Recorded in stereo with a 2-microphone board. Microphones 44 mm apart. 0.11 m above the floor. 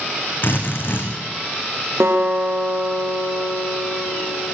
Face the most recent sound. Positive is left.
turn(degrees=-70)  # may be behind; listen again after turning